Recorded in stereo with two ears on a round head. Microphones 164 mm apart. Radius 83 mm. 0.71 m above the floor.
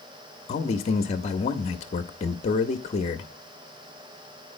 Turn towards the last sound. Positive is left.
turn(degrees=35)  # may be behind; listen again after turning